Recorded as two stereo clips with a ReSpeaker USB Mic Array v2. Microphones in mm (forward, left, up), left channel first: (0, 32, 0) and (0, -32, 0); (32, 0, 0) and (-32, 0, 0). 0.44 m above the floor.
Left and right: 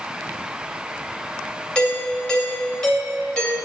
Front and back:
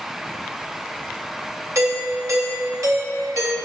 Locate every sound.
1.8 s a doorbell: 160° left, 3 m